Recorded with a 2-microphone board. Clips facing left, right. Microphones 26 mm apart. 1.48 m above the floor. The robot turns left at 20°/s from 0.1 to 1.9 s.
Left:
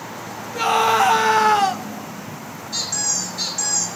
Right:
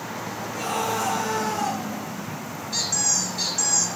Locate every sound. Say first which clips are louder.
0.6 s a scream: left 10 dB; 40° left (ahead or behind), 0.8 m; by 1.8 s 65° left (ahead or behind), 0.8 m
2.7 s a squeak: left 1 dB; centre (ahead or behind), 6.5 m